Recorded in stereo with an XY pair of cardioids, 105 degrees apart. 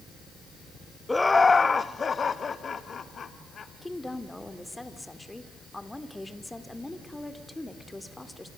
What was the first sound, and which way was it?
Laughter, 15° left.